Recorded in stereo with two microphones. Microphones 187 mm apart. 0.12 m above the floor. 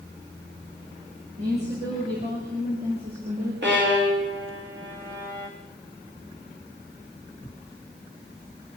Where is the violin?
70° right (ahead or behind), 5.5 m.